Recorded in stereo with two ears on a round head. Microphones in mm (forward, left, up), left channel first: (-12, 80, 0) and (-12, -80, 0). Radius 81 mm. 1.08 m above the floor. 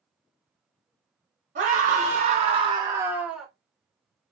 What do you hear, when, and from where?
1.6 s a scream: 45° right (ahead or behind), 1.2 m; by 3.5 s centre (ahead or behind), 1.0 m